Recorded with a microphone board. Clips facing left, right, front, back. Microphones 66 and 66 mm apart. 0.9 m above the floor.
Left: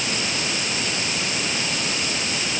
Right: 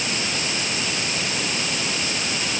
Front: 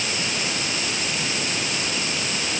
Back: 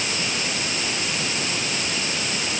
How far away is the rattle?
No rattle in this recording.